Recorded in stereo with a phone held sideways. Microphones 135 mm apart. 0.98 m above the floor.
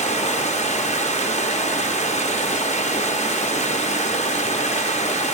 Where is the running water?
55° left (ahead or behind), 0.8 m.